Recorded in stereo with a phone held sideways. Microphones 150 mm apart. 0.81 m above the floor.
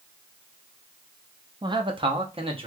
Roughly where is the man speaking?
Right.